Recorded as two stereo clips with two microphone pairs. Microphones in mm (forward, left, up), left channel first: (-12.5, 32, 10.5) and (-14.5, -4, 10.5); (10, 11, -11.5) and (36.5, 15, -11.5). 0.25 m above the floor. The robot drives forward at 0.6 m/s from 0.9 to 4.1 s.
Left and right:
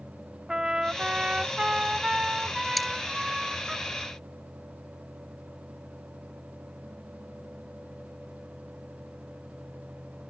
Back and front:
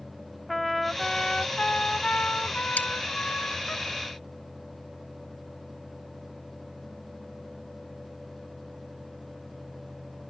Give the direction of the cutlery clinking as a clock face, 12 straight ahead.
6 o'clock.